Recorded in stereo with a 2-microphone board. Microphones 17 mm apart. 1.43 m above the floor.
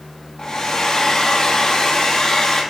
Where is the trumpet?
I don't hear a trumpet.